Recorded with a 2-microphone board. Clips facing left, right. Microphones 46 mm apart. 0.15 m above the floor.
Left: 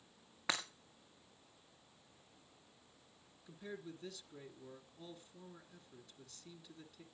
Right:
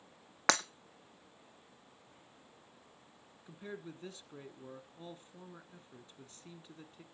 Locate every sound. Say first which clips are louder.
0.5 s breaking glass: right 9 dB; 65° right (ahead or behind), 1.5 m
3.5 s a man speaking: right 2 dB; 30° right (ahead or behind), 1.6 m